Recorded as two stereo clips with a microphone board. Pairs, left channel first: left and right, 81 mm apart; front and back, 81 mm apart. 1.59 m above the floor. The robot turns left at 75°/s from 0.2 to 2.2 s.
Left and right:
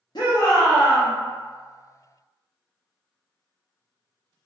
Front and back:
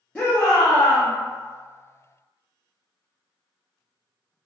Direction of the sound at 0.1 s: 75° left.